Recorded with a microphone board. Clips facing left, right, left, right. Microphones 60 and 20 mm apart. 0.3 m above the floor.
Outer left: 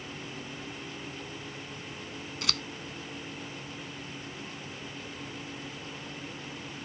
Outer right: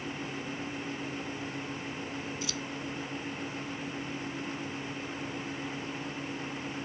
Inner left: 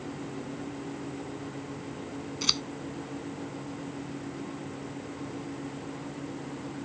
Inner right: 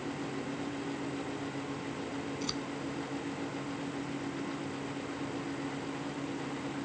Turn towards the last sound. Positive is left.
turn(degrees=65)  # may be behind; listen again after turning